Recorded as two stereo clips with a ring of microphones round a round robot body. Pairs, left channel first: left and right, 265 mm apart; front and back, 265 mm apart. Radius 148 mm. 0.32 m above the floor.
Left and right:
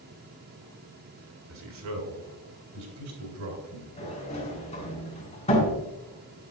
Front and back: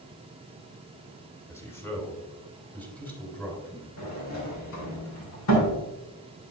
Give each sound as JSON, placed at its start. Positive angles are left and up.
{"t": 1.5, "sound": "a man speaking", "azimuth_deg": -80, "distance_m": 4.0}
{"t": 4.0, "sound": "a sliding door", "azimuth_deg": 25, "distance_m": 4.5}